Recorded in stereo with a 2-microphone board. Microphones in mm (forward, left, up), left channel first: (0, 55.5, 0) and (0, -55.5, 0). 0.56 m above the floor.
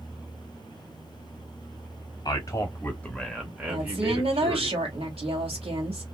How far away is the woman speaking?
About 2 m.